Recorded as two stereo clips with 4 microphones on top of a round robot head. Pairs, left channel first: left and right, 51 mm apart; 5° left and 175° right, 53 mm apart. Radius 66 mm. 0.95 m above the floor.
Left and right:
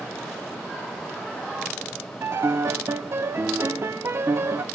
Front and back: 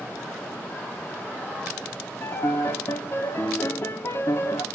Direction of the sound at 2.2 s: 50° right.